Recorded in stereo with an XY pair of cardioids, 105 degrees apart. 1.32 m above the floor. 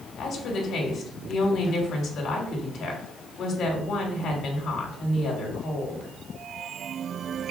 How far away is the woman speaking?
About 3 m.